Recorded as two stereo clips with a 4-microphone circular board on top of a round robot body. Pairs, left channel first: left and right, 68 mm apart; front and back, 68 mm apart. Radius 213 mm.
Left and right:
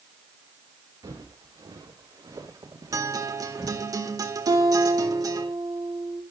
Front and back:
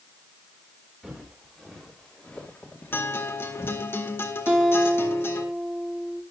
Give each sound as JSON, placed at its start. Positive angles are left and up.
{"t": 1.0, "sound": "footsteps", "azimuth_deg": -100, "distance_m": 3.5}
{"t": 2.9, "sound": "a guitar", "azimuth_deg": -60, "distance_m": 1.8}
{"t": 4.5, "sound": "a guitar", "azimuth_deg": -105, "distance_m": 4.0}